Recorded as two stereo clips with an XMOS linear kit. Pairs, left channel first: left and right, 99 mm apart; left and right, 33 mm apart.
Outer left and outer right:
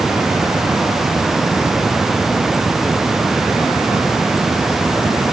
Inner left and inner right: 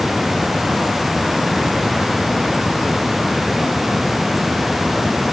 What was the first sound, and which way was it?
Only background noise.